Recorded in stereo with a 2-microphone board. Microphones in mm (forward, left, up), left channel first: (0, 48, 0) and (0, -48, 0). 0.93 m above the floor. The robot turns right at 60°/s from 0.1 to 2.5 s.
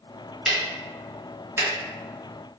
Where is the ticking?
5° right (ahead or behind), 0.6 m; by 1.7 s 25° right (ahead or behind), 0.6 m.